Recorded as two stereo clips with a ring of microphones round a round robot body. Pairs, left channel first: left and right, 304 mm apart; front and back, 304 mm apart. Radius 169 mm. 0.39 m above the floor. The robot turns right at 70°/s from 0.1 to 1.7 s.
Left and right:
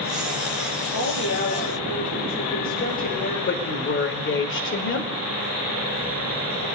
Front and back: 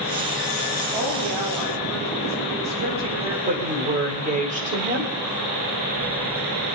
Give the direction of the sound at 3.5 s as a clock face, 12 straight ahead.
8 o'clock.